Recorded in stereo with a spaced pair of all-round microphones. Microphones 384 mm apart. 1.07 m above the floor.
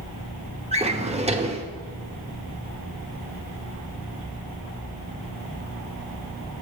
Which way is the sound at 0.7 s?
15° right (ahead or behind).